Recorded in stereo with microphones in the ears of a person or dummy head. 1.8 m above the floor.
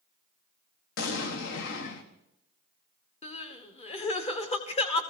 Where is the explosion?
70° left (ahead or behind), 1.4 m.